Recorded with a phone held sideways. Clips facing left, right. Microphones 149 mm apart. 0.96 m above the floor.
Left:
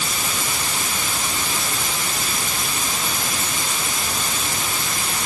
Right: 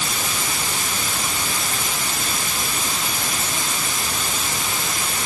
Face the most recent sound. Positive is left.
No sound to turn to.